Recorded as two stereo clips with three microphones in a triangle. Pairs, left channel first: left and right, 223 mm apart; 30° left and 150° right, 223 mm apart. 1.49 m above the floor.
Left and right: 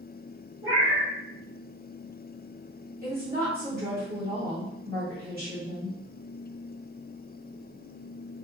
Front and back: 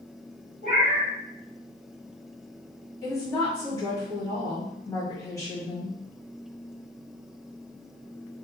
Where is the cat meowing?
95° right, 1.9 m.